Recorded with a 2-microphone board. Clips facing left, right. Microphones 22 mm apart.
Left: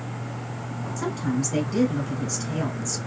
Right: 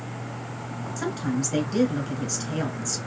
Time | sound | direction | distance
1.0 | a woman speaking | 20° right (ahead or behind) | 1.3 m